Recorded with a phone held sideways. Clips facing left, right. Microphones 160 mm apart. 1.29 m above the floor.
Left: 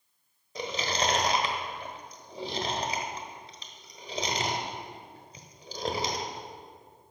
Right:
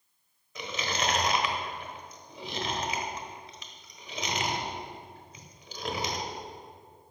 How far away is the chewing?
About 1.3 m.